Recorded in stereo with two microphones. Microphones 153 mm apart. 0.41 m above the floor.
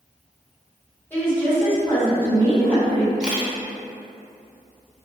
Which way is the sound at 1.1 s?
15° left (ahead or behind).